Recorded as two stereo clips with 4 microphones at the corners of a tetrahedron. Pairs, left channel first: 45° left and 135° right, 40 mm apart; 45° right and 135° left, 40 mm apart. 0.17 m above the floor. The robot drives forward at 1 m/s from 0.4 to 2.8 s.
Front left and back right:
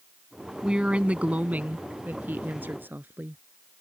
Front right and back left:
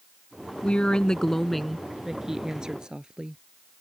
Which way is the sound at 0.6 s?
80° right.